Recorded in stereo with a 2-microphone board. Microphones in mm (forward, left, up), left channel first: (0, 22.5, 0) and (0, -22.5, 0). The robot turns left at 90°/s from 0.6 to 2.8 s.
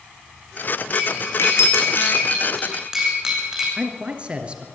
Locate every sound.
0.9 s cutlery clinking: 25° left (ahead or behind), 5 m; by 3.7 s 15° right (ahead or behind), 5 m
3.8 s a man speaking: 25° right (ahead or behind), 2 m